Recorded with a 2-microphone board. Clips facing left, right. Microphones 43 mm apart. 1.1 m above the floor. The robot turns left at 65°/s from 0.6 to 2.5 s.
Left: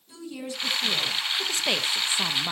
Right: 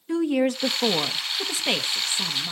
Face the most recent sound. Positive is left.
turn(degrees=130)